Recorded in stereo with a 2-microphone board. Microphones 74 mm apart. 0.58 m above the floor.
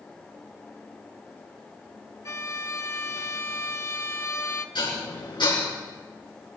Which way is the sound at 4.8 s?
80° left.